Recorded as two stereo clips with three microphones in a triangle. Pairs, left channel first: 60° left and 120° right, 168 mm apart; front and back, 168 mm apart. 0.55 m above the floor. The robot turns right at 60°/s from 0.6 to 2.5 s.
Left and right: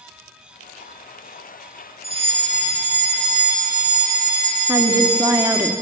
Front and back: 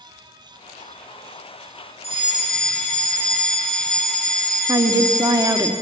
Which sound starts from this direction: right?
A fire alarm, at 2.0 s.